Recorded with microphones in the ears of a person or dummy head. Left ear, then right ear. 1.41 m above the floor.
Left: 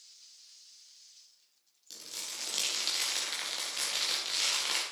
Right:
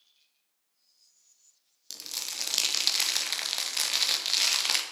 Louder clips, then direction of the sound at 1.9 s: Right 5 dB; 30° right (ahead or behind).